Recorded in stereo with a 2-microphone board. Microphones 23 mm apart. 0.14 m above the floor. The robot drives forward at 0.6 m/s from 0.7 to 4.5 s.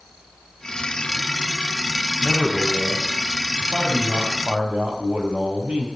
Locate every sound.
2.2 s a man speaking: 60° right (ahead or behind), 6 m; by 5.9 s 70° right (ahead or behind), 5.5 m